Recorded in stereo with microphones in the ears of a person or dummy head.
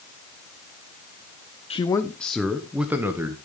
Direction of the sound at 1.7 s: 30° left (ahead or behind).